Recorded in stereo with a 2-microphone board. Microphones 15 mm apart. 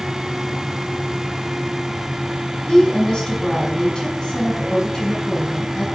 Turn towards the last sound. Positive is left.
turn(degrees=70)  # may be behind; listen again after turning